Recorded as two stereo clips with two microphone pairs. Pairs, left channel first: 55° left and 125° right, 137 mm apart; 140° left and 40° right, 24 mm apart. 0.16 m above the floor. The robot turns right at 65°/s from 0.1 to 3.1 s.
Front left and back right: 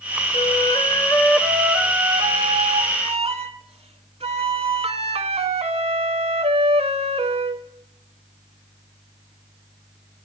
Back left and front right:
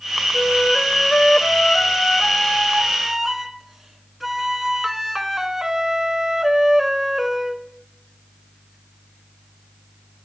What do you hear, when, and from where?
0.3 s a flute: 65° left, 0.6 m; by 7.7 s 120° right, 0.6 m